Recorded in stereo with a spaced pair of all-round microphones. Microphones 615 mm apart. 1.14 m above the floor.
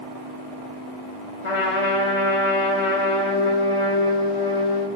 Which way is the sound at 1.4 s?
55° left (ahead or behind).